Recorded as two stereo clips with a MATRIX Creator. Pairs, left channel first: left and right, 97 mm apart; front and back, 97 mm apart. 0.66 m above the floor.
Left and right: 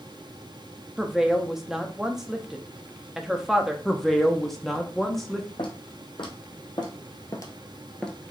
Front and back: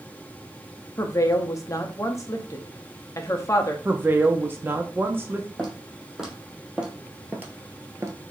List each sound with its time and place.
1.0 s a woman speaking: 10° right, 0.7 m
3.9 s a woman speaking: 170° left, 0.6 m
5.6 s footsteps: 90° left, 1.8 m; by 8.2 s 170° left, 0.7 m